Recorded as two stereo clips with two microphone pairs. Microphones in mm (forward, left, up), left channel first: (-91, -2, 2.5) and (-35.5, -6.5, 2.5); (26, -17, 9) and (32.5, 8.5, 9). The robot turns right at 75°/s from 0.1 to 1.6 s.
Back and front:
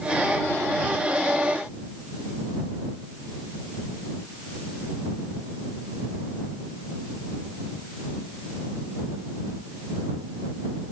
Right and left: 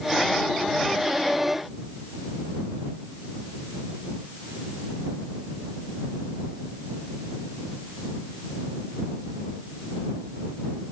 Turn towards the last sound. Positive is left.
No sound to turn to.